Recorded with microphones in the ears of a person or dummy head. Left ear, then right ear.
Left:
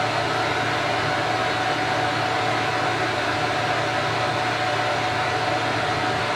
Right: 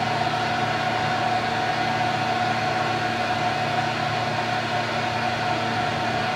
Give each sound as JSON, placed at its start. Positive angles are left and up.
{"t": 0.0, "sound": "a fan", "side_deg": 35, "distance_m": 1.4}